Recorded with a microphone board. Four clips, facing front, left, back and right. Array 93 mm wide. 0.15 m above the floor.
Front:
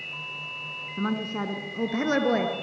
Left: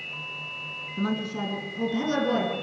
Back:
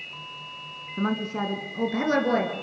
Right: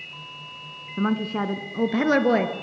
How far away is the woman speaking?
About 1.6 m.